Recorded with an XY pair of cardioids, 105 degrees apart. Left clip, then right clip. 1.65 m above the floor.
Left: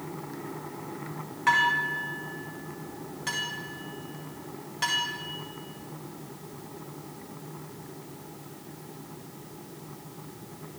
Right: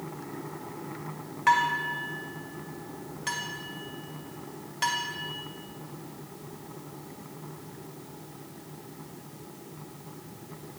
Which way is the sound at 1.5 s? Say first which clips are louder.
Left 1 dB; 15° right.